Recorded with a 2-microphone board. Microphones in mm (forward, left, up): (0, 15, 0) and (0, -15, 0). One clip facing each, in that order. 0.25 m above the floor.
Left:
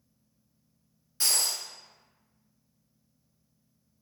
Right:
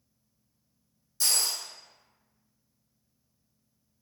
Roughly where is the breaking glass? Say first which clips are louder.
Even; left.